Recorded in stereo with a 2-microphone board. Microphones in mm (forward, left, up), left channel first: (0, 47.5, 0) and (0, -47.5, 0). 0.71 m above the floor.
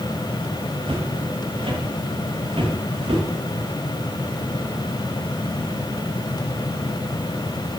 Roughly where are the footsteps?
Right.